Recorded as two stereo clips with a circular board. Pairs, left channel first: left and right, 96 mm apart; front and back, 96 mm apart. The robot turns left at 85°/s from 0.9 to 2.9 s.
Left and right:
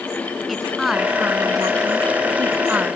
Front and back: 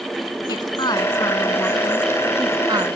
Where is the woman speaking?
Straight ahead; by 3.0 s 170° right.